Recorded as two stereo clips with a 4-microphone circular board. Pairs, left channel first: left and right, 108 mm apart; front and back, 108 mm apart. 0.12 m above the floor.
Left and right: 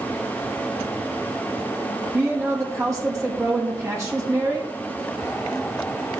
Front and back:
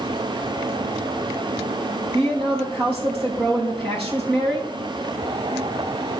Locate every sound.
2.1 s a woman speaking: 150° right, 3.5 m